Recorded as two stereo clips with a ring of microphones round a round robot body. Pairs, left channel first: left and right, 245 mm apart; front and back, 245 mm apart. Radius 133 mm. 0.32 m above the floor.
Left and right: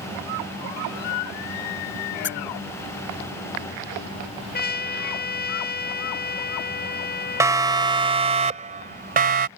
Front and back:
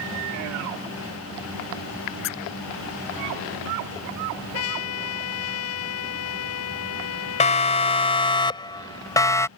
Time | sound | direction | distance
2.2 | a squeak | 45° left | ?
4.5 | a trumpet | 40° left | ?
7.4 | a siren | 25° right | ?